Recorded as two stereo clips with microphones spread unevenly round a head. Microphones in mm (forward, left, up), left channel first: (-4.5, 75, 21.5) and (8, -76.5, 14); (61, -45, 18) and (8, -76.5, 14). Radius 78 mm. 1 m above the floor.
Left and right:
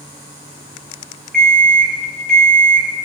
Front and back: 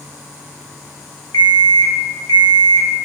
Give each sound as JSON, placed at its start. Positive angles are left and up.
{"t": 1.3, "sound": "an alarm clock", "azimuth_deg": 10, "distance_m": 1.5}